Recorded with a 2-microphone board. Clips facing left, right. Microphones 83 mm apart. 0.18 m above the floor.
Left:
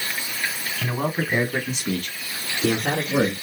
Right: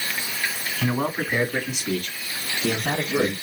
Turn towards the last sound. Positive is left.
turn(degrees=60)  # may be behind; listen again after turning